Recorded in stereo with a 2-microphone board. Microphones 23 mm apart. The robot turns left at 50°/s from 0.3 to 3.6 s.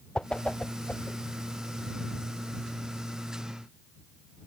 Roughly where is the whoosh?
Left.